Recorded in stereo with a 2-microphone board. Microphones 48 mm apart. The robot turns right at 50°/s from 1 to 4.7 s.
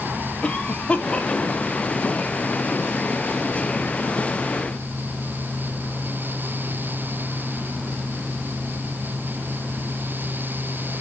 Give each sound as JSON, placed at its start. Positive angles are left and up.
{"t": 0.4, "sound": "a cough", "side_deg": 25, "distance_m": 1.7}